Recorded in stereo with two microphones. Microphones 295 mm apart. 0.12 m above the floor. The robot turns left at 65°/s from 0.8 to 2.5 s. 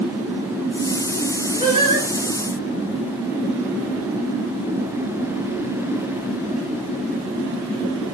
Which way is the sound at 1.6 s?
15° right (ahead or behind).